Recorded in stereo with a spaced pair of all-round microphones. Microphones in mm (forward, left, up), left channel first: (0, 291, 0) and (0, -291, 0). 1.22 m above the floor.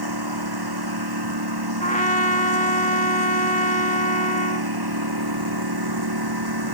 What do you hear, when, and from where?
0.0 s a lawn mower: 40° right (ahead or behind)
1.8 s a trumpet: 15° left (ahead or behind)